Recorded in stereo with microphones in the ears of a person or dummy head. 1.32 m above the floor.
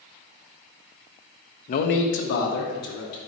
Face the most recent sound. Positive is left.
turn(degrees=65)  # may be behind; listen again after turning